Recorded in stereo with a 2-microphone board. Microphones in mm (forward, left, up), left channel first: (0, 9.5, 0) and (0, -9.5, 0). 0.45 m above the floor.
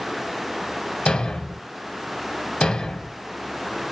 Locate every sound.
1.1 s a thud: 55° left (ahead or behind), 0.7 m